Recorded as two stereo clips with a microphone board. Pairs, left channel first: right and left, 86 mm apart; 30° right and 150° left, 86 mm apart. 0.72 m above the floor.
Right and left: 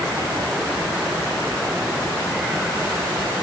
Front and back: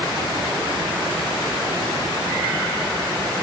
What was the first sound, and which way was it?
Only background noise.